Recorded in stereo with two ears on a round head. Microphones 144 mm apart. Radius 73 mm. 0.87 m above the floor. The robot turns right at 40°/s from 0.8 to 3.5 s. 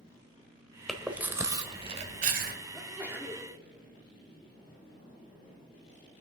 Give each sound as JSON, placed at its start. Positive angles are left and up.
{"t": 0.9, "sound": "chewing", "side_deg": 0, "distance_m": 1.5}
{"t": 2.7, "sound": "a sneeze", "side_deg": 0, "distance_m": 2.5}